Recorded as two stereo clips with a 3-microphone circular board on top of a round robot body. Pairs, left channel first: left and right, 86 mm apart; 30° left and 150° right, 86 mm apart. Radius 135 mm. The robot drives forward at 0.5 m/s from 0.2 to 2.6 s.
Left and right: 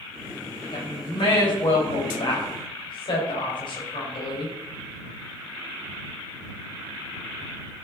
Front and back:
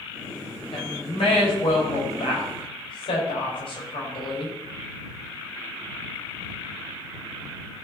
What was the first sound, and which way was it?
A woman speaking, 50° left.